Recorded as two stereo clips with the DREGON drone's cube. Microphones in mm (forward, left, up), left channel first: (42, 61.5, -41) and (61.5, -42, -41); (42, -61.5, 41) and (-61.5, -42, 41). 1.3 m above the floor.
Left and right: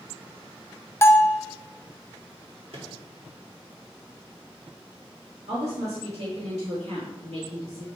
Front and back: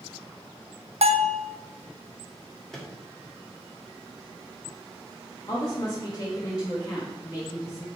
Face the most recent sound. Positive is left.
turn(degrees=-65)